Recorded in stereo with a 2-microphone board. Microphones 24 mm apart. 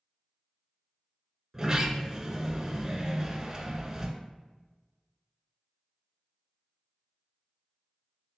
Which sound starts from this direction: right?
A sliding door, at 1.5 s.